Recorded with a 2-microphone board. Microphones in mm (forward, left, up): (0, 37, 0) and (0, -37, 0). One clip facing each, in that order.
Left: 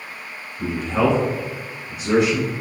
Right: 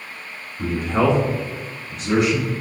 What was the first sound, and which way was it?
A man speaking, 40° right (ahead or behind).